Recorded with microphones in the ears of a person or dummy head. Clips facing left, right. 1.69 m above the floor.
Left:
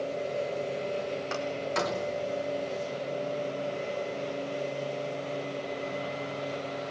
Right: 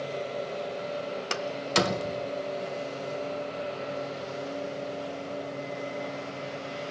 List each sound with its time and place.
1.3 s a door slam: 40° right (ahead or behind), 1.1 m